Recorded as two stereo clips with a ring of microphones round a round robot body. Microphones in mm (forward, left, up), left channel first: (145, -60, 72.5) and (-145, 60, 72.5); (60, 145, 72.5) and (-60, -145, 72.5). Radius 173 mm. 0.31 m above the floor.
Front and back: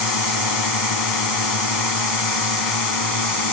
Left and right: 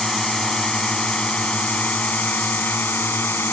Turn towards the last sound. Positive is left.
turn(degrees=-15)